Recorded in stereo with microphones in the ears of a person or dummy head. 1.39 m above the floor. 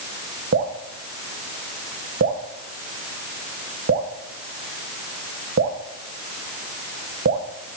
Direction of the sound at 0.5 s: 50° right (ahead or behind).